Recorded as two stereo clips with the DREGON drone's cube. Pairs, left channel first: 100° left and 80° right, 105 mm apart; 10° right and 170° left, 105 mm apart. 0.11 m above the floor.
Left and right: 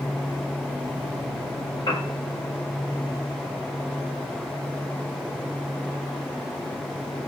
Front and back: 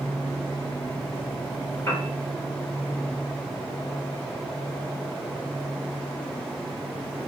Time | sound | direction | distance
1.9 | a piano | 50° left | 6.5 m